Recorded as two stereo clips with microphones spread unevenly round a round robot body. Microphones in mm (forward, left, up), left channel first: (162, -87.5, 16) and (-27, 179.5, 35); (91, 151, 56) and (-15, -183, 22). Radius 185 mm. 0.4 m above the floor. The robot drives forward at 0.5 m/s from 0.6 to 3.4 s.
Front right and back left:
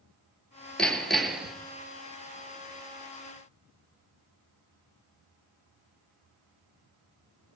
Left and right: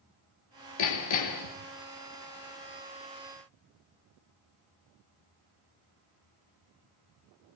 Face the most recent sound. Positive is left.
turn(degrees=55)